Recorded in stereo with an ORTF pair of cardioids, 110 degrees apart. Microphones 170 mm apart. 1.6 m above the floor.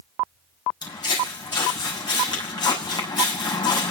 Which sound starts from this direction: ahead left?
Footsteps, at 0.8 s.